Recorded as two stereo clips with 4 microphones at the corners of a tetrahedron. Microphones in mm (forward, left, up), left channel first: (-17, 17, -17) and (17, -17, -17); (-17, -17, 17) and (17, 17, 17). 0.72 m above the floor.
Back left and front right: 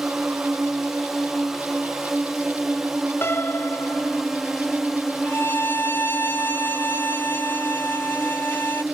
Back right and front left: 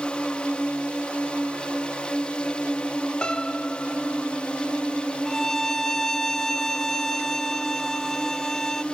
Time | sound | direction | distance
0.0 | a drone | 120° right | ?
3.2 | a piano | 155° left | ?
5.2 | a violin | 145° left | ?